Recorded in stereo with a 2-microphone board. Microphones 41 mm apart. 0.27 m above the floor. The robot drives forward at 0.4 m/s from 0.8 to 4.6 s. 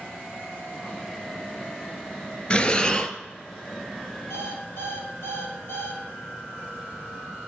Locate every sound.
2.5 s breathing: 25° left (ahead or behind), 0.7 m; by 3.1 s 20° left (ahead or behind), 0.9 m
4.3 s an alarm clock: 75° left (ahead or behind), 2.5 m; by 6.0 s 80° left, 2.5 m